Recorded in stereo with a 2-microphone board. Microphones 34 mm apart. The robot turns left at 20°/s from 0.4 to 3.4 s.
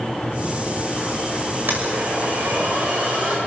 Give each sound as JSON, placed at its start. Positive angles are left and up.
{"t": 1.7, "sound": "a blender", "azimuth_deg": -95, "distance_m": 6.0}